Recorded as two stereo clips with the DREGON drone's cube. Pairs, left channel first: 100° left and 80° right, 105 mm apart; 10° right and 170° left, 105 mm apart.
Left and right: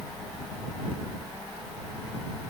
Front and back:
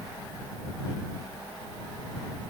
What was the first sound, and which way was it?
Only background noise.